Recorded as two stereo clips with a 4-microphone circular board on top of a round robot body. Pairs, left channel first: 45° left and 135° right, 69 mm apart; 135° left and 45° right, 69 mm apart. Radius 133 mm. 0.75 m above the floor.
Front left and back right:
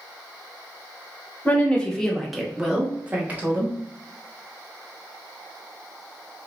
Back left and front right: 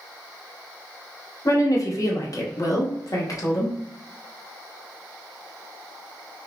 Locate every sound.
1.4 s a woman speaking: 105° left, 1.3 m; by 3.7 s 165° left, 1.8 m